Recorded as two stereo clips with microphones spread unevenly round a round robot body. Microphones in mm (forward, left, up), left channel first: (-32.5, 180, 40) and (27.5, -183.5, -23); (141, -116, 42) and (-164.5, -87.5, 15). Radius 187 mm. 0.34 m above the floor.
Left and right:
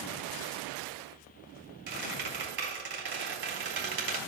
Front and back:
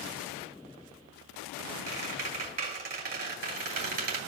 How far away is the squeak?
About 3.5 m.